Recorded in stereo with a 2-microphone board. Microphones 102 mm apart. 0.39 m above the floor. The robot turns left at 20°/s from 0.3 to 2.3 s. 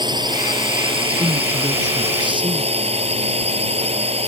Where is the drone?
45° right; by 4.3 s 85° right.